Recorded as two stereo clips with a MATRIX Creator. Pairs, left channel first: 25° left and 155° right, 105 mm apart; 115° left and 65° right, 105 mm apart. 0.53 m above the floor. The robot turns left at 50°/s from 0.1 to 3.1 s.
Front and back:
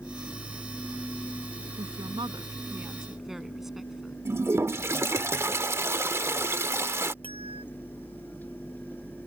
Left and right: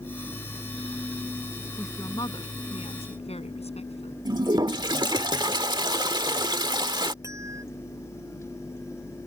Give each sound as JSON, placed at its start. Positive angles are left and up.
{"t": 1.8, "sound": "a woman speaking", "azimuth_deg": -175}
{"t": 4.2, "sound": "a toilet flushing", "azimuth_deg": -100}
{"t": 7.2, "sound": "a bell", "azimuth_deg": -130}